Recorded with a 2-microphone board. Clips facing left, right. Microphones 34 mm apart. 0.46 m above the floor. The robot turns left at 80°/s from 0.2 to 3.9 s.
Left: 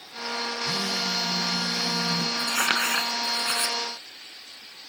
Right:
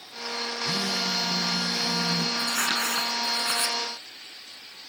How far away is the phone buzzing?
About 2 m.